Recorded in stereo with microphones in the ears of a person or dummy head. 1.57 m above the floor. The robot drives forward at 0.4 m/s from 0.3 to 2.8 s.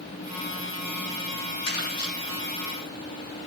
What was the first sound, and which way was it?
Crumpling, 80° left.